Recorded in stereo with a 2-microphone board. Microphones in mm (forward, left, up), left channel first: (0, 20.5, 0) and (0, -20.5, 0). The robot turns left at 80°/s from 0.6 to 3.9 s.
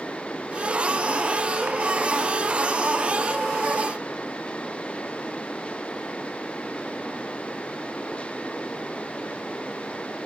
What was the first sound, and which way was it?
Only background noise.